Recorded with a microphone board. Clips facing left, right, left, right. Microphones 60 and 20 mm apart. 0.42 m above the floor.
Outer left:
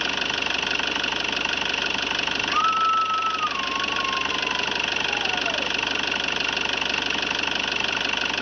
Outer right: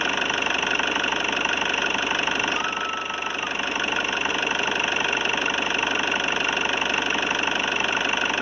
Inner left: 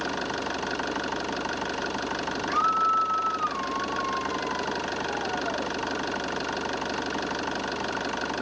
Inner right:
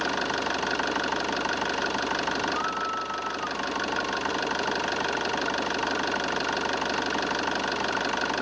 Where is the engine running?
15° right (ahead or behind).